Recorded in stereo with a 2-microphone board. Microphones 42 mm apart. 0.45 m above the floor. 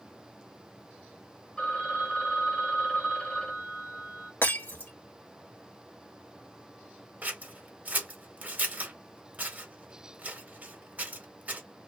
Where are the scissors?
40° right (ahead or behind), 1.0 m.